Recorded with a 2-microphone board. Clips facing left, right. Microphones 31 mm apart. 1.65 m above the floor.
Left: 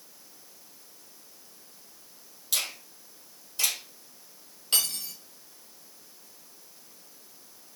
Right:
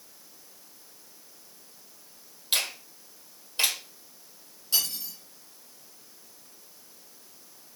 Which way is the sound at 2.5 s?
45° right (ahead or behind).